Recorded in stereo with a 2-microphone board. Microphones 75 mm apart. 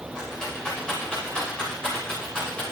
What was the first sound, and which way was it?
A rattle, 10° left (ahead or behind).